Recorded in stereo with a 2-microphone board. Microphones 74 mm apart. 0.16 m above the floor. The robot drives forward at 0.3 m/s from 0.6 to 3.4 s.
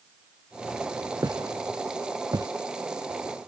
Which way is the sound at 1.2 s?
55° right (ahead or behind).